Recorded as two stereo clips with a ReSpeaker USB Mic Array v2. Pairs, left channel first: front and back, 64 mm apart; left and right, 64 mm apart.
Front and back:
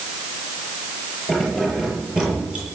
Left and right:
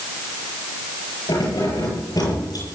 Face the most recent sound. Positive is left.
turn(degrees=105)